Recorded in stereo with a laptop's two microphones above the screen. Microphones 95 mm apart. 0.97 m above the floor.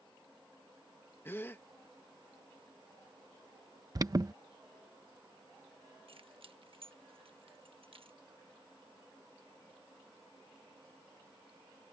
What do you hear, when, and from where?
1.2 s a gasp: 25° left (ahead or behind)
4.0 s an alarm: 40° right (ahead or behind)
6.1 s keys jangling: 70° right (ahead or behind)